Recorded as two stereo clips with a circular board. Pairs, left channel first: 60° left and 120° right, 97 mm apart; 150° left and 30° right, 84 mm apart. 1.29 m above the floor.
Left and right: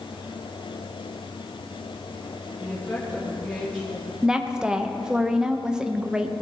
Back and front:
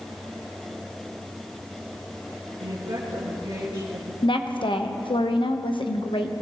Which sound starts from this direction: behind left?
A woman speaking, at 4.2 s.